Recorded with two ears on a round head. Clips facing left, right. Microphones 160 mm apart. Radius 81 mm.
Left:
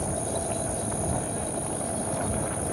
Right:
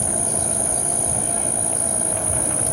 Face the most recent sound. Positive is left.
turn(degrees=-75)  # may be behind; listen again after turning